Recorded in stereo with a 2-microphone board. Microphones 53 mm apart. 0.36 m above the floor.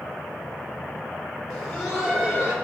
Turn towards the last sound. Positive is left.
turn(degrees=-25)  # may be behind; listen again after turning